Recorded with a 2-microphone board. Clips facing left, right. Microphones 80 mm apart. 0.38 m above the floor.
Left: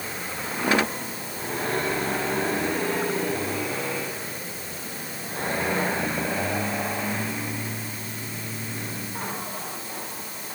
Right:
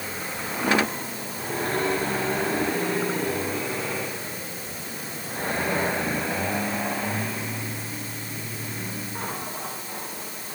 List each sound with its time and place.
Only background noise.